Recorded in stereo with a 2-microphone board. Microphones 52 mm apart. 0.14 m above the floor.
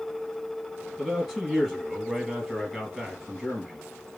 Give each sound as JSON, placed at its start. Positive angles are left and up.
{"t": 1.0, "sound": "a man speaking", "side_deg": 5, "distance_m": 2.5}